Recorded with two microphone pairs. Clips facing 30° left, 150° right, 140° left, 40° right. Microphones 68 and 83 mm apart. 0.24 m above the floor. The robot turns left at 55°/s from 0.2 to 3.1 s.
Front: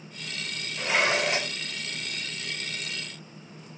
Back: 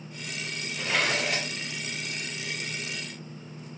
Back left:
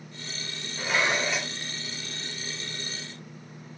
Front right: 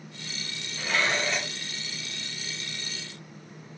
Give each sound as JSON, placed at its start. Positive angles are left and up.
{"t": 0.8, "sound": "dishes clattering", "azimuth_deg": 90, "distance_m": 0.8}